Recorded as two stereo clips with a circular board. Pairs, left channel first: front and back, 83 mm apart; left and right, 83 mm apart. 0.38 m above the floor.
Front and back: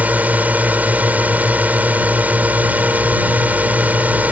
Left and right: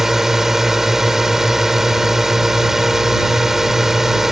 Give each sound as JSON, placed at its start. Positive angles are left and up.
{"t": 0.0, "sound": "a drone", "azimuth_deg": -165}